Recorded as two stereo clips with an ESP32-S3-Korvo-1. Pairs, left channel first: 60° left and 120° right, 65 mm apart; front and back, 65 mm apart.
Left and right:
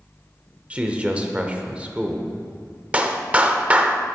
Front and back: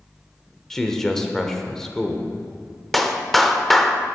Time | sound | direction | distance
0.7 | a man speaking | 75° right | 0.9 m
2.9 | a clap | 85° right | 0.6 m